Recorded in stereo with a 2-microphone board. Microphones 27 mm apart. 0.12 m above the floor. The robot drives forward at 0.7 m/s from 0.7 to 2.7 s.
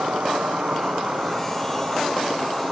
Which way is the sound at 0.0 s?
80° right.